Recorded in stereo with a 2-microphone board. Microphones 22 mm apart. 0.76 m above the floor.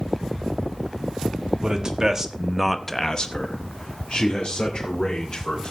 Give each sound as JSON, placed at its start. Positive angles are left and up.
{"t": 1.6, "sound": "a man speaking", "side_deg": -35, "distance_m": 1.8}